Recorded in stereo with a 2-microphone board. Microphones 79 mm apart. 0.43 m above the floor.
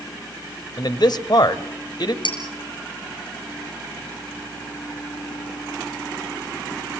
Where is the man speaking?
55° left (ahead or behind), 1.5 m.